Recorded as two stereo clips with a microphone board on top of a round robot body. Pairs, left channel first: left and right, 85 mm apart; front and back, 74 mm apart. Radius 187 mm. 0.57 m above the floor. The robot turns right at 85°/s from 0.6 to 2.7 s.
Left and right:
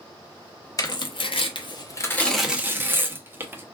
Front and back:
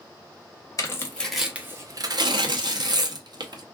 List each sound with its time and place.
0.8 s tearing paper: 40° left, 0.8 m; by 3.6 s 155° right, 0.8 m